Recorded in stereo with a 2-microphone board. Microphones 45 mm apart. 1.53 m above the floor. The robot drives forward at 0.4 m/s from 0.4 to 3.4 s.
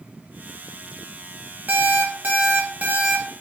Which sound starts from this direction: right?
An alarm clock, at 1.7 s.